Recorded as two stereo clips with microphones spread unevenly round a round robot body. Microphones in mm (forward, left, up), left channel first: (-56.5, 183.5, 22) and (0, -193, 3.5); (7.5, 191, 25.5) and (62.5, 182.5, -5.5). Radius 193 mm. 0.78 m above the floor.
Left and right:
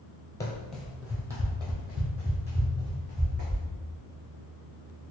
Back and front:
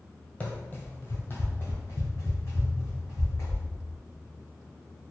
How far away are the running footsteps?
About 1.1 m.